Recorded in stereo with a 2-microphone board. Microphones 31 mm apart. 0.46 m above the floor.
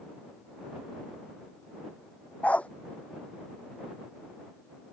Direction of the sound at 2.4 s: 45° left (ahead or behind).